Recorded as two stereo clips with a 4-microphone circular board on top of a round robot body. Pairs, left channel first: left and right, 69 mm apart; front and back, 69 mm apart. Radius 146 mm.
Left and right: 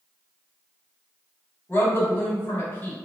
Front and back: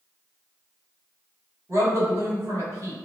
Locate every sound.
1.7 s a woman speaking: 145° left, 1.9 m